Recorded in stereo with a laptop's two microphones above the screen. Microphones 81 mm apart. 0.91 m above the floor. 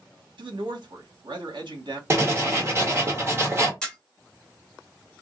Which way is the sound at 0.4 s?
65° right (ahead or behind).